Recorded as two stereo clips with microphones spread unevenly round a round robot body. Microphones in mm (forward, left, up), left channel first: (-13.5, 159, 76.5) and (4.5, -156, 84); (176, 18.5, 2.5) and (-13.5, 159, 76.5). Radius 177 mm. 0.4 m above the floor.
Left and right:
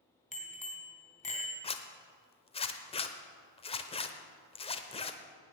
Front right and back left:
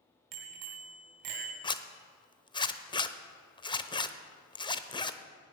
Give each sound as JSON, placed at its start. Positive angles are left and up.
{"t": 0.3, "sound": "a bicycle bell", "azimuth_deg": 160, "distance_m": 2.5}
{"t": 1.6, "sound": "a zipper", "azimuth_deg": 25, "distance_m": 0.9}